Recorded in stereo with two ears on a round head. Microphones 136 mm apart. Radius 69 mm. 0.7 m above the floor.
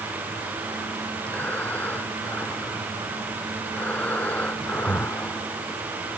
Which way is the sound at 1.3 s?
10° left (ahead or behind).